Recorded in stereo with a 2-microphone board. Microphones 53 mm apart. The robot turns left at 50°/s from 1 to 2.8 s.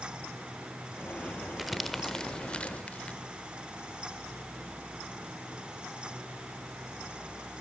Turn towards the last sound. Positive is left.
turn(degrees=25)  # may be behind; listen again after turning